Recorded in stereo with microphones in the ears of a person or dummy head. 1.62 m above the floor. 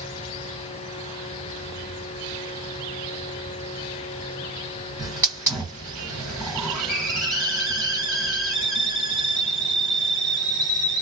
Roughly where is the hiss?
Centre.